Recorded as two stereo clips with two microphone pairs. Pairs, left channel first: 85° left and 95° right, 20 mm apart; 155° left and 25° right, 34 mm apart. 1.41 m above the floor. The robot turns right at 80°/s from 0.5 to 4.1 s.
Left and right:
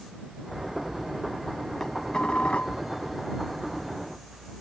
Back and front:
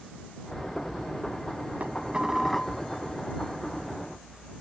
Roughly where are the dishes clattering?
Ahead.